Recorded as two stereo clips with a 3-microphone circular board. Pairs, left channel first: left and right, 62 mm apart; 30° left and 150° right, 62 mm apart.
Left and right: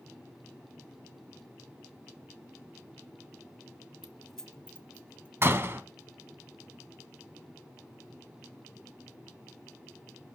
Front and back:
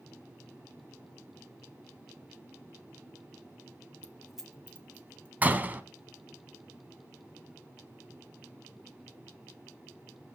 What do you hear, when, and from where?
4.0 s keys jangling: 25° right, 0.8 m; by 5.3 s 155° left, 1.8 m
5.4 s a door slam: 105° right, 1.0 m